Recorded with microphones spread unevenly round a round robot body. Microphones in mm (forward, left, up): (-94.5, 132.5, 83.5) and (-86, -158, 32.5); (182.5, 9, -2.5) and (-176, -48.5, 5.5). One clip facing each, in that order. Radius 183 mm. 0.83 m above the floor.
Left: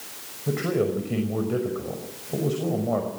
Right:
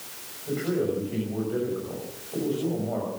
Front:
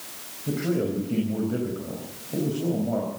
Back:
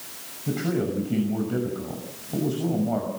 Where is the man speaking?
115° left, 6 m.